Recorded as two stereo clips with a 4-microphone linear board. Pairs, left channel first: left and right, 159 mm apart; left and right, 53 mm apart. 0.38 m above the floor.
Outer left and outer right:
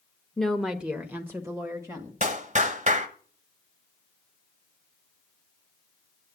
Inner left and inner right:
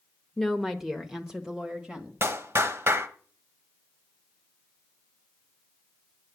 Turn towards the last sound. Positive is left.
turn(degrees=-50)  # may be behind; listen again after turning